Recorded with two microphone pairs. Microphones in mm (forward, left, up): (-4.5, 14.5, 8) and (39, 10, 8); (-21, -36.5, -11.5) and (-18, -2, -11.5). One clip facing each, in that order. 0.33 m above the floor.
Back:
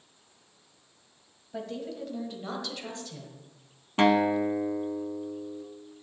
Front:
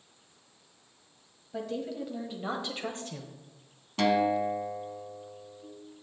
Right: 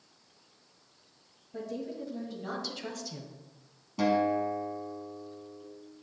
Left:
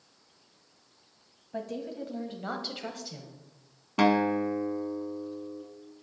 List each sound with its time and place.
1.5 s a woman speaking: 90° left, 1.7 m; by 3.4 s 20° left, 1.4 m
4.0 s a guitar: 115° left, 0.7 m